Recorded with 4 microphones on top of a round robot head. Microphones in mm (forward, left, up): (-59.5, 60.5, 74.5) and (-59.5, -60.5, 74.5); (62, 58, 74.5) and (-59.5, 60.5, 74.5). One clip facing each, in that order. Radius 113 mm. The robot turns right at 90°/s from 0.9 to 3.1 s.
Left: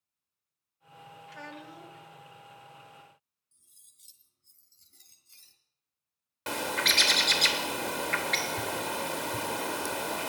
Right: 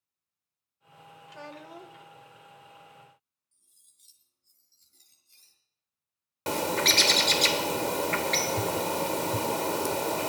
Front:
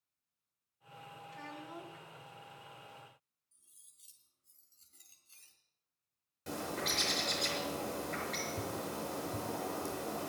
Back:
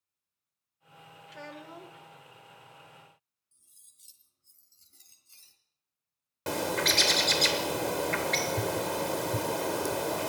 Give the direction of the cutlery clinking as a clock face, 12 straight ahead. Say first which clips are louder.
Left 3 dB, back 2 dB; 8 o'clock.